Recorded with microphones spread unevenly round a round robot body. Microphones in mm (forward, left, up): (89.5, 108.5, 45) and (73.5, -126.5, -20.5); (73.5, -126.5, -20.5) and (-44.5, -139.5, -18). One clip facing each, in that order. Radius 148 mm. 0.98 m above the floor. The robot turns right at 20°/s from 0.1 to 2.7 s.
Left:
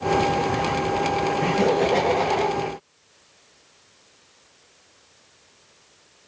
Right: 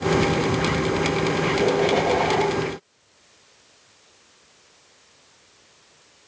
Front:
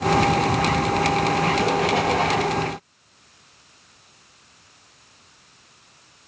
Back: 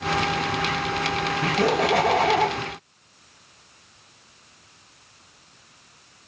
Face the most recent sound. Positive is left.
turn(degrees=165)